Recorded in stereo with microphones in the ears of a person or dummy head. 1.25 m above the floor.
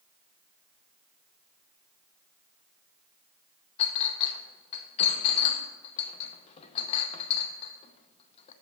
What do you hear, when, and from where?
3.8 s a clink: 30° left (ahead or behind), 0.7 m